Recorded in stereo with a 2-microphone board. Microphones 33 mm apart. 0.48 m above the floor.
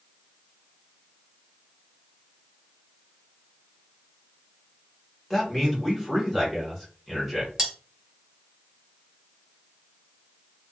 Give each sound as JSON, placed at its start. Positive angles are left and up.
{"t": 5.3, "sound": "a man speaking", "side_deg": 0, "distance_m": 1.3}
{"t": 7.6, "sound": "cutlery clinking", "side_deg": -15, "distance_m": 1.4}